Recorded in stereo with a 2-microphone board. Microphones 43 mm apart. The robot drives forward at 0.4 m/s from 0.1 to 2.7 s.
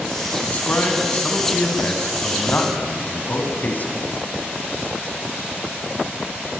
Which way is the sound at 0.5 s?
35° left (ahead or behind).